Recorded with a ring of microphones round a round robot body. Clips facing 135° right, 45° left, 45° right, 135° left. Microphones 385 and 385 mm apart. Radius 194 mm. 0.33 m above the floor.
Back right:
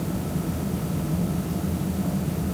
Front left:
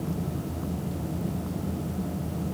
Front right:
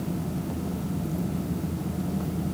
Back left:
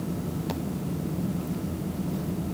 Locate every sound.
Only background noise.